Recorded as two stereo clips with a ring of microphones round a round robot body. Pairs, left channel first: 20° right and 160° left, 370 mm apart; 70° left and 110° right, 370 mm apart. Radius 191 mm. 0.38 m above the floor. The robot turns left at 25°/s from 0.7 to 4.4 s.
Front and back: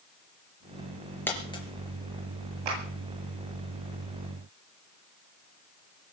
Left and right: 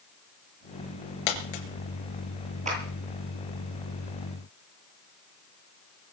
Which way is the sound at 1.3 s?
65° left.